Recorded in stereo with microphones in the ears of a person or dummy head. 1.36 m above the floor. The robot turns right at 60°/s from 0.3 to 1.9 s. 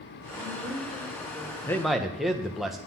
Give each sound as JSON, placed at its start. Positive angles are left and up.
{"t": 0.3, "sound": "a woman speaking", "azimuth_deg": -30, "distance_m": 3.5}
{"t": 1.7, "sound": "a man speaking", "side_deg": 10, "distance_m": 1.2}